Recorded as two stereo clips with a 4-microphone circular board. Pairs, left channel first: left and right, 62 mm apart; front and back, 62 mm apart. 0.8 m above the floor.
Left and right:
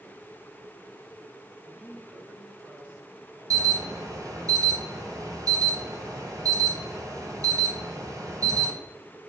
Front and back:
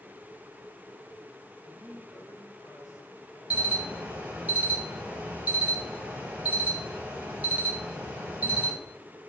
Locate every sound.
1.6 s a man speaking: 10° right, 2.5 m; by 4.5 s 45° right, 5 m
3.5 s an alarm: 115° right, 2.5 m